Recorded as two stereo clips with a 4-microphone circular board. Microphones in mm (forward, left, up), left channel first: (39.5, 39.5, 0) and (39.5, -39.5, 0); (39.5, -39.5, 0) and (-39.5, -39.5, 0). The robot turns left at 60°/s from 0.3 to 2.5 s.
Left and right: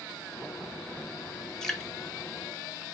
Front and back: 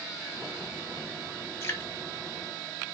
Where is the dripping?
15° left, 0.8 m; by 1.9 s 5° right, 0.8 m.